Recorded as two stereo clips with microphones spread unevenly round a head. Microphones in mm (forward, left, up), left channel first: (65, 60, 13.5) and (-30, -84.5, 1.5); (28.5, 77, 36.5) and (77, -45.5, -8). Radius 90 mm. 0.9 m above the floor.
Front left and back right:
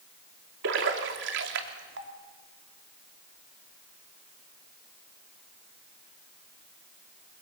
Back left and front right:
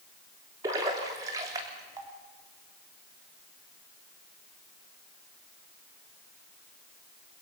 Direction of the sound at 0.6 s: 130° right.